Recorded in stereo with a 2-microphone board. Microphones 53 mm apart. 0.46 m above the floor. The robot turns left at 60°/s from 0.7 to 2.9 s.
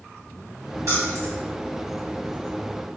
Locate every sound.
0.9 s keys jangling: 60° right (ahead or behind), 1.7 m; by 1.4 s 80° right, 1.7 m